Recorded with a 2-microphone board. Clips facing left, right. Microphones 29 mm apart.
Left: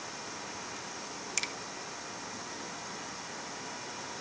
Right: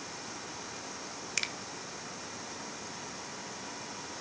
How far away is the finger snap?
About 1.0 m.